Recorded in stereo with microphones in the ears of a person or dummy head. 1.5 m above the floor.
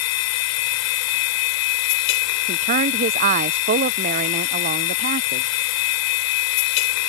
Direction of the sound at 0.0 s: 70° left (ahead or behind).